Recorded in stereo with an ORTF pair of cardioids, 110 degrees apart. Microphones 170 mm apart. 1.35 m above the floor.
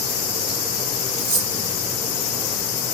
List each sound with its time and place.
1.2 s cutlery clinking: 65° right, 1.2 m